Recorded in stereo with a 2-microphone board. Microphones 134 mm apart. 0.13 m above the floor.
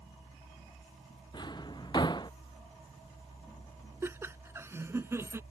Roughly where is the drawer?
Left.